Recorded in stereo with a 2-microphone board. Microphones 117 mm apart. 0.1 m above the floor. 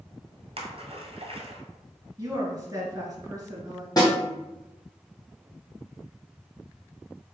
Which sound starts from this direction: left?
A snare drum, at 4.0 s.